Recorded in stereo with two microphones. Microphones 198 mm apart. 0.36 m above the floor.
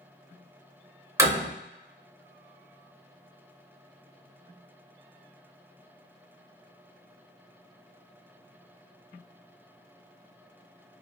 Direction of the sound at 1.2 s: 15° right (ahead or behind).